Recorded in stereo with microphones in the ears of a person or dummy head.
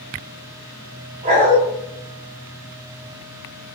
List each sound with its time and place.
1.2 s a dog barking: 40° right (ahead or behind), 2.5 m